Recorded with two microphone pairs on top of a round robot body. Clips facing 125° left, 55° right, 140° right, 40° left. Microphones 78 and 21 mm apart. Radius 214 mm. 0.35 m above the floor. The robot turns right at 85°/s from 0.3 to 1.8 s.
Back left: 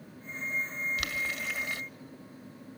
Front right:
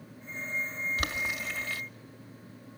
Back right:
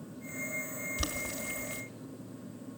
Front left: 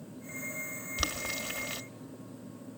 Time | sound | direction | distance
1.0 | boiling | 5° right | 1.9 m